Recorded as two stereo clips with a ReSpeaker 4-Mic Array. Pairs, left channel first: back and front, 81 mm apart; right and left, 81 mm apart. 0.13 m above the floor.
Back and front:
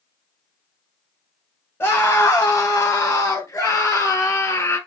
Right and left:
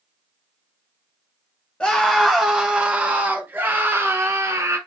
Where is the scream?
160° right, 1.7 m; by 4.8 s 130° left, 2.5 m.